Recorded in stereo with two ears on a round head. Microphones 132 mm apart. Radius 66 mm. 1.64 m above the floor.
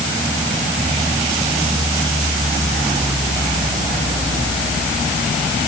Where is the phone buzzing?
No phone buzzing in this recording.